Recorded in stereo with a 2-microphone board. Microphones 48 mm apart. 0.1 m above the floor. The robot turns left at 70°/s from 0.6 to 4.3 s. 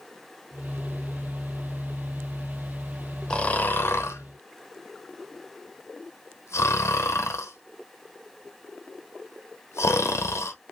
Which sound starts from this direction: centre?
Snoring, at 3.3 s.